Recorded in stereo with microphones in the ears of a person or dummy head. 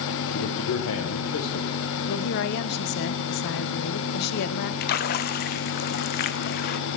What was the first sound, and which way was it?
A man speaking, 75° left (ahead or behind).